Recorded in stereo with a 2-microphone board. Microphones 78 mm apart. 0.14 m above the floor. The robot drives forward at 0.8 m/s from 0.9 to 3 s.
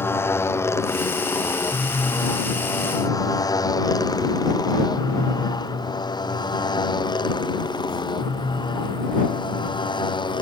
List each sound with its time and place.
0.0 s a motorcycle: 30° left (ahead or behind); by 10.4 s 75° left (ahead or behind)